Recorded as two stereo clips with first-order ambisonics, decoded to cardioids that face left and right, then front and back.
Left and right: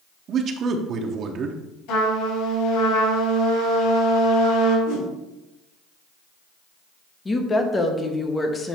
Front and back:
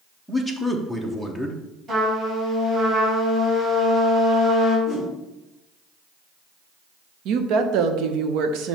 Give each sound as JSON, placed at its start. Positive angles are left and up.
{"t": 0.3, "sound": "a man speaking", "azimuth_deg": -95, "distance_m": 0.7}
{"t": 1.9, "sound": "a trumpet", "azimuth_deg": 115, "distance_m": 3.0}
{"t": 4.9, "sound": "a whoosh", "azimuth_deg": 90, "distance_m": 3.5}
{"t": 7.2, "sound": "a woman speaking", "azimuth_deg": 165, "distance_m": 0.8}